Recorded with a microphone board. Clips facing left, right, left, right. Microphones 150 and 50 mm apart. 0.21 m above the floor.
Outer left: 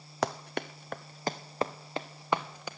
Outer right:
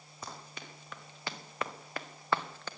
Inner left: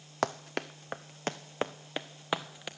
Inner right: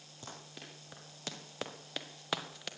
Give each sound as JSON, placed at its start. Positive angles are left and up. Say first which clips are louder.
{"t": 0.2, "sound": "running footsteps", "louder": "outer left 14 dB, inner left 17 dB", "side_deg": 70, "distance_m": 0.9}